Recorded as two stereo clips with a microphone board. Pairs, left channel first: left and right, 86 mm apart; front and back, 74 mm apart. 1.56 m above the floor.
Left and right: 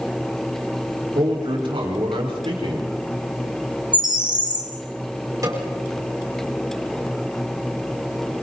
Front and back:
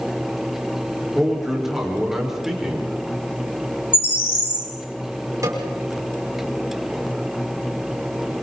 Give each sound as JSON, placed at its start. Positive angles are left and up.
{"t": 1.1, "sound": "a man speaking", "azimuth_deg": -95, "distance_m": 5.5}
{"t": 3.9, "sound": "a bird", "azimuth_deg": -60, "distance_m": 3.0}
{"t": 5.4, "sound": "a snare drum", "azimuth_deg": -135, "distance_m": 5.5}